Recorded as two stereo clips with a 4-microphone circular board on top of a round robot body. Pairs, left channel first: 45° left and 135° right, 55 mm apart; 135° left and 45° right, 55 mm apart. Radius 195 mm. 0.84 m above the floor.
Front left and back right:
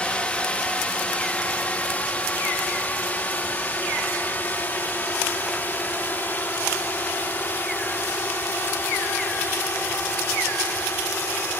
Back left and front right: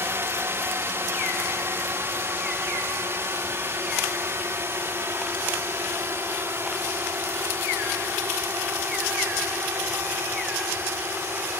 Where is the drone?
20° right; by 11.6 s 5° right.